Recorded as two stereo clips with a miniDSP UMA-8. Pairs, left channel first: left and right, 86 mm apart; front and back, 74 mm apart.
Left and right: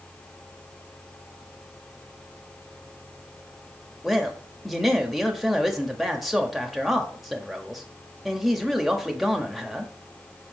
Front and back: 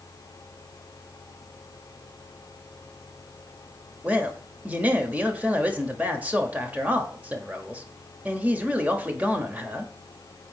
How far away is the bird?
I don't hear a bird.